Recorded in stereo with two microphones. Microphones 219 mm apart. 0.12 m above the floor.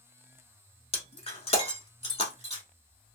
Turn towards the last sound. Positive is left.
turn(degrees=30)  # may be behind; listen again after turning